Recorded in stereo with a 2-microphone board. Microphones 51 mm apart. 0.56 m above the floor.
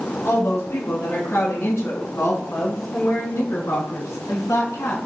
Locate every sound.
0.2 s a woman speaking: 50° left (ahead or behind), 8.5 m; by 5.0 s 70° left (ahead or behind), 7 m